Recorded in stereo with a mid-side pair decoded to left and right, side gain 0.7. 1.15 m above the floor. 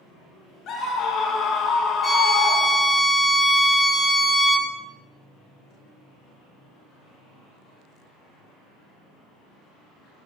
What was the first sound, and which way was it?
A scream, 50° left.